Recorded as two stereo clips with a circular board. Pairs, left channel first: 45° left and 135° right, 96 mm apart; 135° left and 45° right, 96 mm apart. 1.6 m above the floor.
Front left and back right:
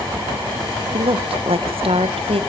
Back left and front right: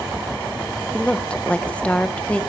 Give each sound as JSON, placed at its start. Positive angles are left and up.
{"t": 0.9, "sound": "a woman speaking", "azimuth_deg": -145, "distance_m": 1.7}